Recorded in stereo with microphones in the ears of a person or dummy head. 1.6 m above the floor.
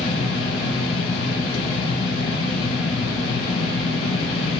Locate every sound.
0.0 s a fan: 30° left (ahead or behind), 1.8 m